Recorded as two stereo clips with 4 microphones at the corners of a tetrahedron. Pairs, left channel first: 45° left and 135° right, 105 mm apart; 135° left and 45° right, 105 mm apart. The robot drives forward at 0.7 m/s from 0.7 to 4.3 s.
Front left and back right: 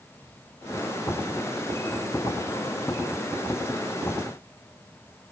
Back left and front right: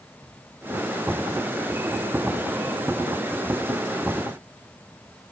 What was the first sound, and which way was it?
Only background noise.